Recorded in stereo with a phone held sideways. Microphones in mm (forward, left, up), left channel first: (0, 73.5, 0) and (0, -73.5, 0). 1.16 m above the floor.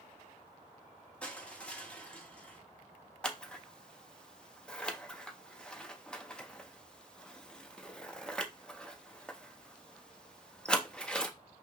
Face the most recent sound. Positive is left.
turn(degrees=5)  # may be behind; listen again after turning